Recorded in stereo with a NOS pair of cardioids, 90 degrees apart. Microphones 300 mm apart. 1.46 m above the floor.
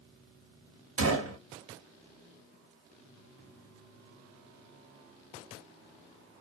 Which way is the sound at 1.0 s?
50° right.